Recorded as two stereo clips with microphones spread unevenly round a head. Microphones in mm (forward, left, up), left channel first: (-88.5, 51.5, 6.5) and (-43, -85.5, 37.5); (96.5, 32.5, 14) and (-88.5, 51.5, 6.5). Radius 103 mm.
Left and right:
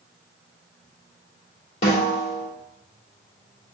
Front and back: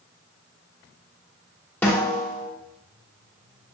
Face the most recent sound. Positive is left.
turn(degrees=65)